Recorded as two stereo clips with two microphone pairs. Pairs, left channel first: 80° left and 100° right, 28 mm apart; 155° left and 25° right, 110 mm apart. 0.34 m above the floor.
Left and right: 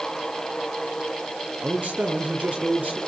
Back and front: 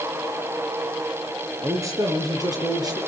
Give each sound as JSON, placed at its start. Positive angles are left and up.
{"t": 1.6, "sound": "a man speaking", "azimuth_deg": -90, "distance_m": 5.0}